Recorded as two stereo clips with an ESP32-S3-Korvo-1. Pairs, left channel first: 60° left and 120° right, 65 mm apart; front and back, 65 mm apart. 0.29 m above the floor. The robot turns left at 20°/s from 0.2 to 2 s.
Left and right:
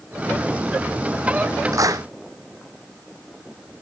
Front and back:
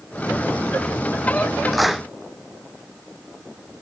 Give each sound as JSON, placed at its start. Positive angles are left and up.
{"t": 1.7, "sound": "a clap", "azimuth_deg": -90}